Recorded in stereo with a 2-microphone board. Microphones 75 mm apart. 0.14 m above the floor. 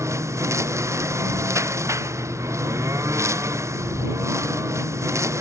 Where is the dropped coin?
No dropped coin in this recording.